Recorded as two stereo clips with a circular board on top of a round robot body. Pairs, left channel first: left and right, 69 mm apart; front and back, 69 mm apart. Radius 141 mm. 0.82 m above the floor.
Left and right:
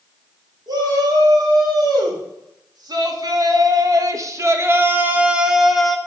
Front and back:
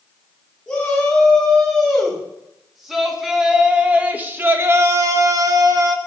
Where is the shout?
80° right, 3.5 m; by 6.0 s 175° left, 1.4 m.